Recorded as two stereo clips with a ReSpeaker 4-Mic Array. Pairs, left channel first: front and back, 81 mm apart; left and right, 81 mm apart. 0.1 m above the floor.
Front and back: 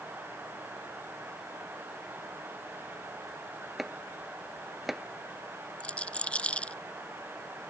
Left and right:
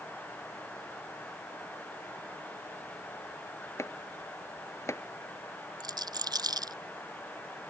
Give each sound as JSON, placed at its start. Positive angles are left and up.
{"t": 3.8, "sound": "chopping", "azimuth_deg": 95}
{"t": 5.8, "sound": "a rattle", "azimuth_deg": -75}